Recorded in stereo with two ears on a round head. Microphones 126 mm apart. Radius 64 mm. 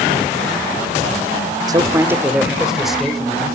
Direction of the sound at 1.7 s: 30° right (ahead or behind).